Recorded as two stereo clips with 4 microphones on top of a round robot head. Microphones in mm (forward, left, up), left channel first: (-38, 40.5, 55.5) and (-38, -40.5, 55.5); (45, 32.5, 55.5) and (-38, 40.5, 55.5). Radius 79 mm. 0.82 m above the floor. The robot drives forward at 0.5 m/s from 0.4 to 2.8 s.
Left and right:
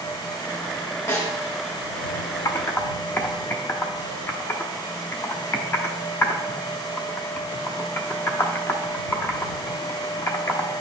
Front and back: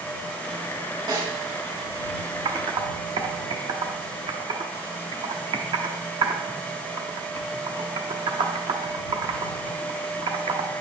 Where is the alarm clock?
I don't hear an alarm clock.